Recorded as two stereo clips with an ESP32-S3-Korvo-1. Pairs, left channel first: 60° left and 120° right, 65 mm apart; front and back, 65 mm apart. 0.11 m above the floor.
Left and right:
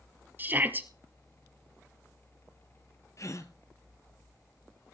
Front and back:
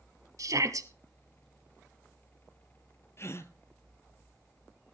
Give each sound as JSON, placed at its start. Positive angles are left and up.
{"t": 0.4, "sound": "a shout", "azimuth_deg": -175, "distance_m": 2.0}
{"t": 3.2, "sound": "a gasp", "azimuth_deg": 40, "distance_m": 1.5}